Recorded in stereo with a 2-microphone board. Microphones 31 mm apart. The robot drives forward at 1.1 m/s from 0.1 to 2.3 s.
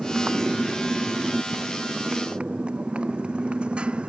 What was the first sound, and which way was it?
A motorcycle, 30° right (ahead or behind).